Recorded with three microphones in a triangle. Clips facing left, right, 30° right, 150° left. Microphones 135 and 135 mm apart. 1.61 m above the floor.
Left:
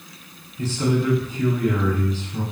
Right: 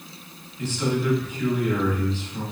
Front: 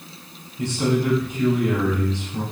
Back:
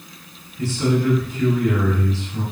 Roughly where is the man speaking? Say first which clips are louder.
Left 3 dB, back 1 dB; ahead left.